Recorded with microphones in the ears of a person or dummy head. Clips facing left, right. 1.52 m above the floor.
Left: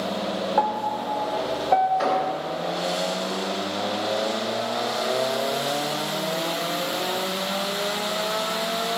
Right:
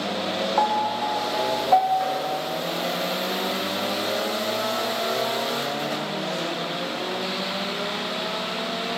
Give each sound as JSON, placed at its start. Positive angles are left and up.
{"t": 0.6, "sound": "a piano", "side_deg": 25, "distance_m": 0.6}
{"t": 2.0, "sound": "an explosion", "side_deg": 60, "distance_m": 0.6}